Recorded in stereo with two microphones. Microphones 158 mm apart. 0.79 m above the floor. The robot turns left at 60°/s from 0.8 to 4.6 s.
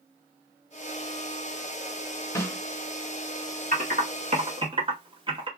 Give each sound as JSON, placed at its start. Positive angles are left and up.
{"t": 2.4, "sound": "a snare drum", "side_deg": 20, "distance_m": 1.2}
{"t": 3.7, "sound": "typing on a keyboard", "side_deg": -65, "distance_m": 1.5}